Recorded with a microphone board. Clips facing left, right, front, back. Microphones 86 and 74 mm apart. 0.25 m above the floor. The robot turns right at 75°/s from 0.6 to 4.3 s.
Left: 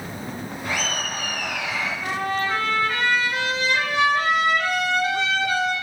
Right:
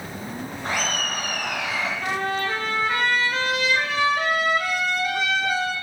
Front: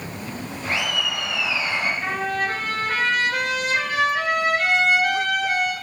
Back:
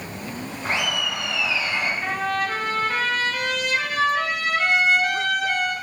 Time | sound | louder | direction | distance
0.7 | laughter | right 1 dB, even | 130° right | 1.9 m
2.0 | a trumpet | left 2 dB, even | 90° right | 3 m